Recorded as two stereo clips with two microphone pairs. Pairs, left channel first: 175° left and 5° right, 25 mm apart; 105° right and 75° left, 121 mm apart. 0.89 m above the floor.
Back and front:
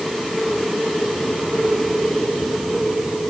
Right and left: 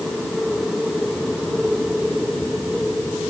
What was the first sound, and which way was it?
Only background noise.